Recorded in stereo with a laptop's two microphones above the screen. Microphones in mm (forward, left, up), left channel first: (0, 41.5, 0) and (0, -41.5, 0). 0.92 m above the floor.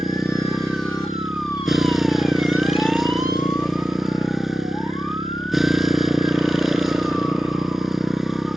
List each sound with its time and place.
0.0 s a motorcycle: centre (ahead or behind)